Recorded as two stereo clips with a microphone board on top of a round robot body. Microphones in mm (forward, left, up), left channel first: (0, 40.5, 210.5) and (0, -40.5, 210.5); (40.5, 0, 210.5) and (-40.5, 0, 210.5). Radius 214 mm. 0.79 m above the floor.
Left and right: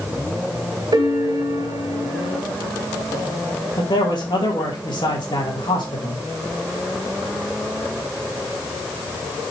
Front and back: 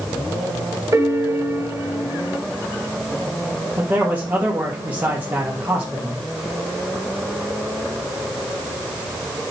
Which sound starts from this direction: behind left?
A man speaking, at 3.8 s.